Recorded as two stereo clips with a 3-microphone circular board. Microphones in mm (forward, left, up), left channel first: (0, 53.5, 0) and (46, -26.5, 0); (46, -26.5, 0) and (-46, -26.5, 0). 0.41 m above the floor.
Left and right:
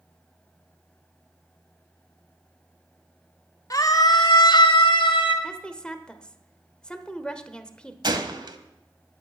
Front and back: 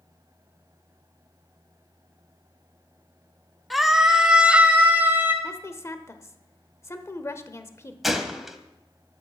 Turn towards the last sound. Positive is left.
turn(degrees=-90)